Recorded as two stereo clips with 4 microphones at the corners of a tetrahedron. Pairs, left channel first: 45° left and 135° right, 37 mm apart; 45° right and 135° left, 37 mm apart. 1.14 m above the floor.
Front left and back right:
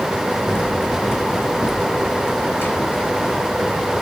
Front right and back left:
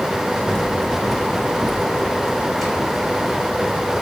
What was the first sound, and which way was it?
Running footsteps, 30° left.